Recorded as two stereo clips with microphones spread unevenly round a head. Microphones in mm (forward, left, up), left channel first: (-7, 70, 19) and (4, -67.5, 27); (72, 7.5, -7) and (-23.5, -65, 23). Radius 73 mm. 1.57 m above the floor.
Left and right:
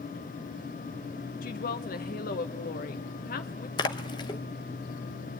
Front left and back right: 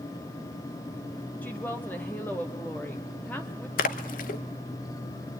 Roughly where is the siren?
No siren in this recording.